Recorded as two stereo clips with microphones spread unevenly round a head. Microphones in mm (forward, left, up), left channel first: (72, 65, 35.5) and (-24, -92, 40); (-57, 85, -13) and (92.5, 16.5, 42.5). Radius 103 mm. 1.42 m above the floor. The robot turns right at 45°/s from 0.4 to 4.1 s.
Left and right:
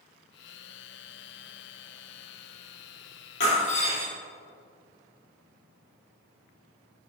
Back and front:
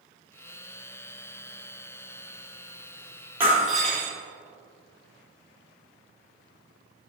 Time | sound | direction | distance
3.4 | breaking glass | 40° left | 2.5 m